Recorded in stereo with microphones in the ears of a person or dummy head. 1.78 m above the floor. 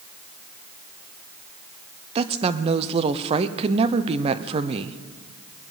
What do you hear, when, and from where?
2.1 s a woman speaking: 35° right (ahead or behind), 0.7 m